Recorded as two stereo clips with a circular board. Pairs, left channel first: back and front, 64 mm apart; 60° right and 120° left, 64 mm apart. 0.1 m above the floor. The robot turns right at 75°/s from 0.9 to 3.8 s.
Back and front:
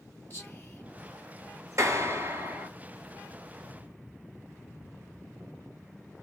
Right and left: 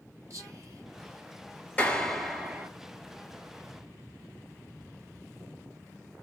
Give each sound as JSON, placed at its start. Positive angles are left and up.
{"t": 0.3, "sound": "whispering", "azimuth_deg": 140, "distance_m": 2.5}
{"t": 1.8, "sound": "a clap", "azimuth_deg": -10, "distance_m": 2.0}